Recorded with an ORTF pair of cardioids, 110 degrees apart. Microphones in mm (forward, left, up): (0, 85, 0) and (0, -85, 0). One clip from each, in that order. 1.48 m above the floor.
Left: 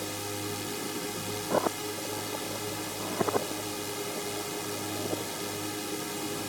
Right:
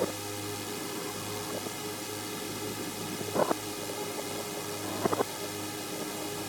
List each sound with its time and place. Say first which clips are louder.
0.0 s a drone: right 1 dB; 10° left